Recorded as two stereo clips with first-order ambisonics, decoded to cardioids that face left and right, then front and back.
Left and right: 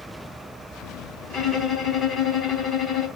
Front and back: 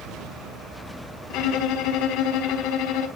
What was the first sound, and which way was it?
A violin, 30° left.